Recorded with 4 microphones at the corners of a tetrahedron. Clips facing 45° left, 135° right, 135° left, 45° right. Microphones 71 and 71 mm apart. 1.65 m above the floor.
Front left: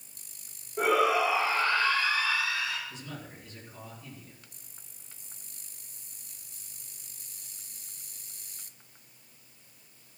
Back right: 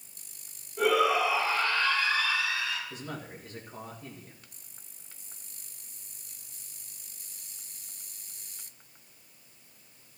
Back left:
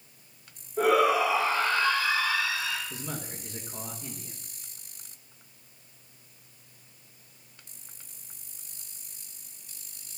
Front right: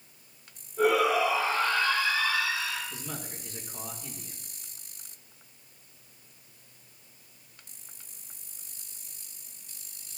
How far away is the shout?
About 5.5 m.